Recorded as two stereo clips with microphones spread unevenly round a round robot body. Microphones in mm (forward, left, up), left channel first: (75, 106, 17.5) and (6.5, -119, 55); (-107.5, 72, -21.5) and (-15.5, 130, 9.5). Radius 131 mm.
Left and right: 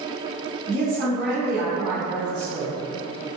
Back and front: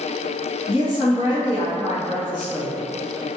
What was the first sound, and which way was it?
A woman speaking, 160° right.